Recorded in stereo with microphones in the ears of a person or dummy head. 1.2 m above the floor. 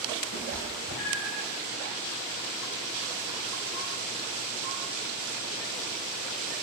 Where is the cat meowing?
70° left (ahead or behind), 2 m.